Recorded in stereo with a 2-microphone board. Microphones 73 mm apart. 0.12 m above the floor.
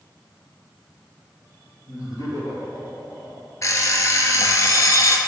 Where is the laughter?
55° left (ahead or behind), 2.5 m; by 3.5 s 60° left (ahead or behind), 4 m.